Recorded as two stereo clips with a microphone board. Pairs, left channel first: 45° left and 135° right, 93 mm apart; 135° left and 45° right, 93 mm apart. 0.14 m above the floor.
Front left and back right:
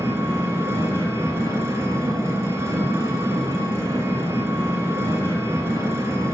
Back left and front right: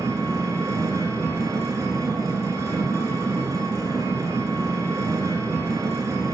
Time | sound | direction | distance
0.0 | an engine running | 85° right | 1.8 m